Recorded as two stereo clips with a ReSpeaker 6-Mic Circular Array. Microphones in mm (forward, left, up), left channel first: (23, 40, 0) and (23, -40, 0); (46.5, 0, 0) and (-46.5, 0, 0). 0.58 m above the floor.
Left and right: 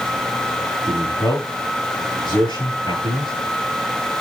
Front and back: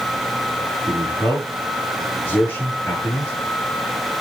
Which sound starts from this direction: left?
A man speaking, at 0.9 s.